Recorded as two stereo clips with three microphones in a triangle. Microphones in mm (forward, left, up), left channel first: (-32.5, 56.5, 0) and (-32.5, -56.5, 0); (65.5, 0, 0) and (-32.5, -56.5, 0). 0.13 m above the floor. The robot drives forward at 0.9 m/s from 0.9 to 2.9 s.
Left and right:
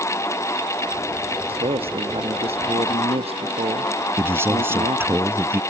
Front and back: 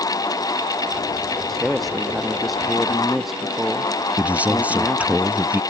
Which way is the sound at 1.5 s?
60° right.